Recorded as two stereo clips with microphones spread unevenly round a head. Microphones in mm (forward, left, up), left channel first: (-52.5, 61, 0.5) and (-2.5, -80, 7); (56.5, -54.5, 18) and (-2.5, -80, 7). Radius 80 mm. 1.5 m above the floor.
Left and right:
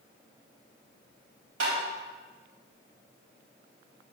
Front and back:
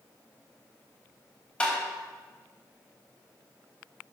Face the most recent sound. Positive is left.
turn(degrees=-45)